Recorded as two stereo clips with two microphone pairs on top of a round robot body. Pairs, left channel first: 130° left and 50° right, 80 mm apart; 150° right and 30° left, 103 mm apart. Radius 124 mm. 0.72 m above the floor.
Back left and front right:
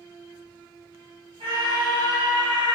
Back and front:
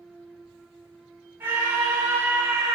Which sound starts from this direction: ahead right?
A scream, at 1.4 s.